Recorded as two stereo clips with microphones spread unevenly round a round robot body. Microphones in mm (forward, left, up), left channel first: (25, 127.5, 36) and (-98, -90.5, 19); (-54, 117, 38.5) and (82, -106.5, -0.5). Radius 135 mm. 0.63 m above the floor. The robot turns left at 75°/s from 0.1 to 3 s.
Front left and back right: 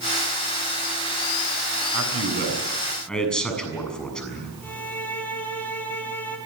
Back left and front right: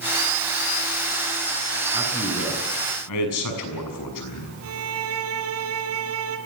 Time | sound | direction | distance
1.9 | a man speaking | 130° right | 7 m
4.6 | a violin | 25° right | 3 m